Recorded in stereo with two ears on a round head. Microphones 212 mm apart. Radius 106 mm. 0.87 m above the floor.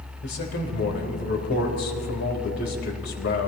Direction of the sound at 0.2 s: 50° left (ahead or behind).